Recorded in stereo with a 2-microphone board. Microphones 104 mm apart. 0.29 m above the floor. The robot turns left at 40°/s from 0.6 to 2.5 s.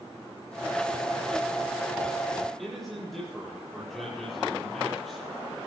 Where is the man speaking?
Centre (ahead or behind), 7 m.